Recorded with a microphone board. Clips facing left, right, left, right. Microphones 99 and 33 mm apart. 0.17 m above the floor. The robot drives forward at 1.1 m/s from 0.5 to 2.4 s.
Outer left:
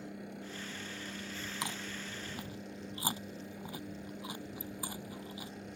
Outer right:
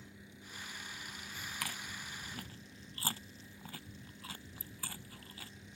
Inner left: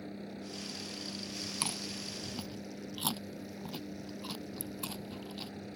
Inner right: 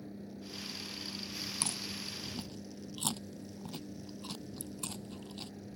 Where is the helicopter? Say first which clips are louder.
Outer left 11 dB, inner left 3 dB; 55° left (ahead or behind).